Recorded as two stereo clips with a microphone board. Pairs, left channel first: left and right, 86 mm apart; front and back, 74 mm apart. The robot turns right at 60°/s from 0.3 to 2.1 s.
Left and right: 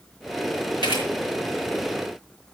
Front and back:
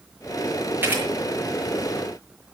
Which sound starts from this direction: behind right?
A camera shutter, at 0.8 s.